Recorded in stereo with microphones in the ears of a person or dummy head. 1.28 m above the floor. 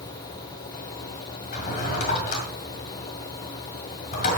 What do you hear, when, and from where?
1.5 s a drawer: 55° left (ahead or behind), 2 m